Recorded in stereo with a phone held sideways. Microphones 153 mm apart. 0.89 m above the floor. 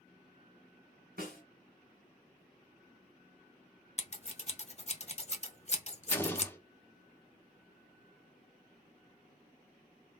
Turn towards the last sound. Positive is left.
turn(degrees=15)  # may be behind; listen again after turning